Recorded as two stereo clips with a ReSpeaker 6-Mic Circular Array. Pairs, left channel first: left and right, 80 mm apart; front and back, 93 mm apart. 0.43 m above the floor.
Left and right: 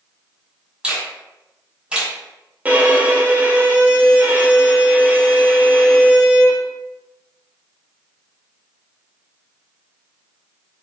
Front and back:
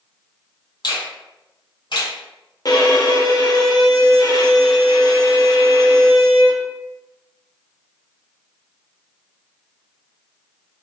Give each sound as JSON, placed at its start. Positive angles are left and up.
{"t": 0.8, "sound": "a finger snap", "azimuth_deg": -15, "distance_m": 1.4}
{"t": 2.6, "sound": "a violin", "azimuth_deg": -25, "distance_m": 0.7}